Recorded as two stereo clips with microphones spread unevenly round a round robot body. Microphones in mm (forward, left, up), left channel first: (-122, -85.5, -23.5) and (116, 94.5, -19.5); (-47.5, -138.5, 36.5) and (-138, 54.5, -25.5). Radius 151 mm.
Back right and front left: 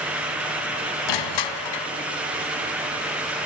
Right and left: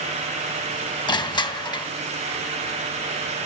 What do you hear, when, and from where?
1.1 s crushing: 135° right, 3 m